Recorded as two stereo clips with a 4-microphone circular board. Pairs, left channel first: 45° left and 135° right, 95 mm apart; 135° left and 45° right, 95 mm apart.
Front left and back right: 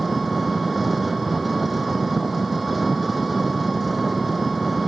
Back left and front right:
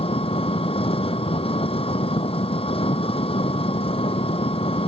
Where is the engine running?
135° left.